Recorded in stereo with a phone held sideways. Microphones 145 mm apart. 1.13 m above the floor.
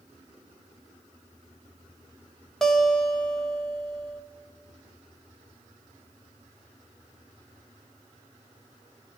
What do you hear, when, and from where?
2.6 s a guitar: 5° left (ahead or behind), 1.0 m